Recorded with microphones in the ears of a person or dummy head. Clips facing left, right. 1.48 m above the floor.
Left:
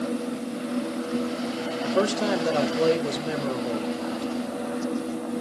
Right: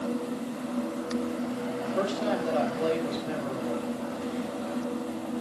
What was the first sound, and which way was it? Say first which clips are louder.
A man speaking: left 5 dB; 65° left (ahead or behind).